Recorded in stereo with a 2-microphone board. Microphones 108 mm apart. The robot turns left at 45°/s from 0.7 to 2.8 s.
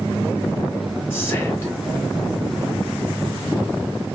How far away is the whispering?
About 1.0 m.